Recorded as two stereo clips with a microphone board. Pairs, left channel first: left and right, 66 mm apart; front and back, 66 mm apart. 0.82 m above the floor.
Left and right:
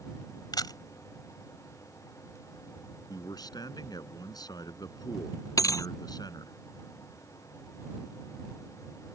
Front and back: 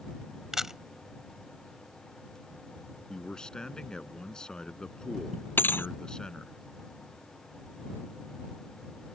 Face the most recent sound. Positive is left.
turn(degrees=60)